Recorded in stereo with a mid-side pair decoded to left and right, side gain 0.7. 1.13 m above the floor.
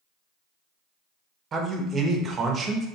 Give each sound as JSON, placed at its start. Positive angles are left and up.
{"t": 1.5, "sound": "a man speaking", "azimuth_deg": -30, "distance_m": 0.6}